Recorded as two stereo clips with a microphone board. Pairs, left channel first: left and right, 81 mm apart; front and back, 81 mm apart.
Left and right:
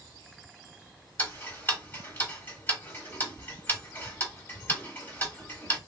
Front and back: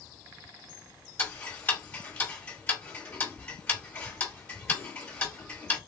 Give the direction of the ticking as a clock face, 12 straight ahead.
10 o'clock.